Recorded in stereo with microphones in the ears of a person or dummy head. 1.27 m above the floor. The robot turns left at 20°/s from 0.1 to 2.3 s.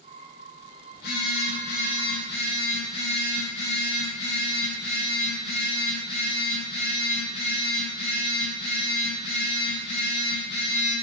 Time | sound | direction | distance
0.9 | a phone buzzing | 55° left (ahead or behind) | 0.7 m